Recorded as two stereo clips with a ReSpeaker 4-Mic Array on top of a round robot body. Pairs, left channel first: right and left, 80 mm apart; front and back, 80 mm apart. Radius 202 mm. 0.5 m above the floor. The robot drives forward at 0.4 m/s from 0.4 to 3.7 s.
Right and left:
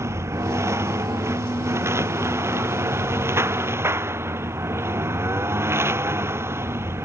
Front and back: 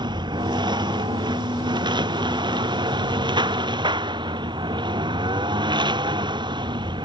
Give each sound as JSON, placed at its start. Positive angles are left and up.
{"t": 0.0, "sound": "a lawn mower", "azimuth_deg": 150}